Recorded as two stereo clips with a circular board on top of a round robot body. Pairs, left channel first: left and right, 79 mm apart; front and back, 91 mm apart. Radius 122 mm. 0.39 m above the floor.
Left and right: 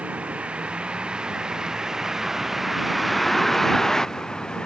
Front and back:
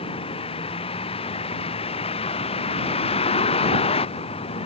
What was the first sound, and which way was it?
A vehicle, 15° right.